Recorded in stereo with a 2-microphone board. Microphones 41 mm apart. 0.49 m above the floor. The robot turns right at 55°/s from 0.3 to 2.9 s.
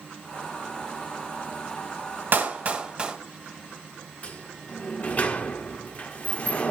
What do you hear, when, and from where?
2.3 s a clap: 55° right (ahead or behind), 2.5 m; by 3.1 s 25° right (ahead or behind), 2.5 m
4.2 s a sliding door: 35° left (ahead or behind), 1.1 m